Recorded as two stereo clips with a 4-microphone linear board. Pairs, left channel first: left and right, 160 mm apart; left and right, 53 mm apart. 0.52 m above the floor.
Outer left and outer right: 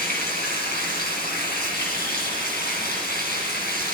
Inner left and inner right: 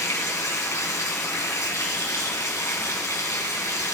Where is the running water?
85° left, 2.5 m.